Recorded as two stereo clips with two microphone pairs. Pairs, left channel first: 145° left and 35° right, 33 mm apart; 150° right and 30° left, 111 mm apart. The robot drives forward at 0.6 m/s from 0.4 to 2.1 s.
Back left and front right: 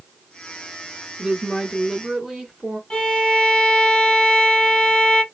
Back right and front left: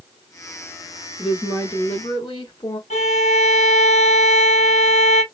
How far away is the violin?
About 1.8 m.